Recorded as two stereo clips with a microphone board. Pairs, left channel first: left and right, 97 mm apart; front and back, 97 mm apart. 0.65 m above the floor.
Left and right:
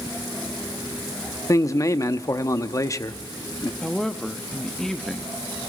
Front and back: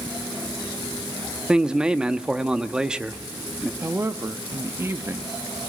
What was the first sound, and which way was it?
A man speaking, 105° left.